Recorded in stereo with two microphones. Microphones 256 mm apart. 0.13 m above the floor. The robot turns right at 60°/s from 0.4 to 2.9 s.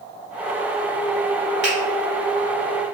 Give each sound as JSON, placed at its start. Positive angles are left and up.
{"t": 1.6, "sound": "a finger snap", "side_deg": 45, "distance_m": 1.7}